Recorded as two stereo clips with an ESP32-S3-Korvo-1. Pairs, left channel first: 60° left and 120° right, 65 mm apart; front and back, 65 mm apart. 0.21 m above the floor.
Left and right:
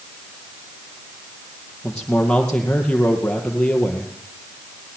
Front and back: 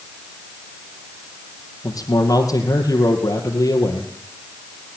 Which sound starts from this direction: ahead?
A man speaking, at 1.8 s.